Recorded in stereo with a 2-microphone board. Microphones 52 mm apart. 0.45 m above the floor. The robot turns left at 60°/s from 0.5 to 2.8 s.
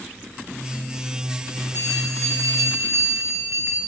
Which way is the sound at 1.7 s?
50° right.